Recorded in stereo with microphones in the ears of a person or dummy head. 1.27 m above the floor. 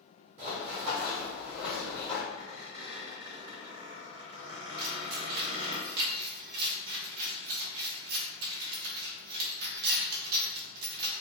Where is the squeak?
30° right (ahead or behind), 1.8 m.